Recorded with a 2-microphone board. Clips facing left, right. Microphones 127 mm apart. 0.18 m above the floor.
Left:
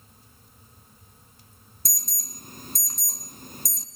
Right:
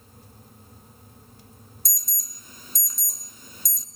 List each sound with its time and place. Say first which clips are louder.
1.9 s an alarm: left 4 dB; 50° left (ahead or behind), 1.5 m